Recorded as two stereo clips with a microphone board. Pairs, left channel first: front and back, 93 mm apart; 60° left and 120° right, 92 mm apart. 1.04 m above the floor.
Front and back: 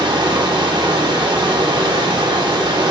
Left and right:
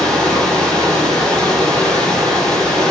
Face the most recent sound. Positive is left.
turn(degrees=145)